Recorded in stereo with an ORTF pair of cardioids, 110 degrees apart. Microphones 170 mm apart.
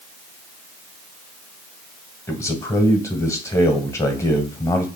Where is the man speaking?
15° left, 1.2 m.